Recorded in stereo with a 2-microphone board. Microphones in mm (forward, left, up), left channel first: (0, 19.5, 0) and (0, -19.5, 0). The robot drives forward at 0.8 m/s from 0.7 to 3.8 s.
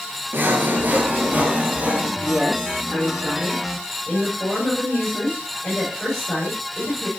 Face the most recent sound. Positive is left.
turn(degrees=5)  # may be behind; listen again after turning